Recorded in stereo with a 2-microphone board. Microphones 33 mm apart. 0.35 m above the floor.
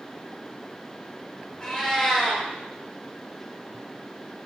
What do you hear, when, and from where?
1.6 s a cat meowing: 15° left (ahead or behind), 2.5 m